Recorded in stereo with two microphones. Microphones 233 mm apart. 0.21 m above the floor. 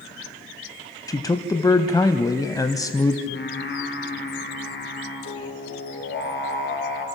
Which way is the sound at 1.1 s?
15° left (ahead or behind).